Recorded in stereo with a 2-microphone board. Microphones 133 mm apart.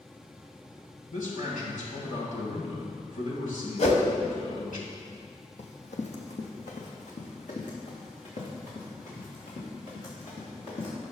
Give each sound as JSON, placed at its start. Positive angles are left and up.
{"t": 1.1, "sound": "a man speaking", "side_deg": 70, "distance_m": 2.5}
{"t": 3.8, "sound": "a whoosh", "side_deg": 55, "distance_m": 0.9}
{"t": 5.6, "sound": "running footsteps", "side_deg": 60, "distance_m": 1.2}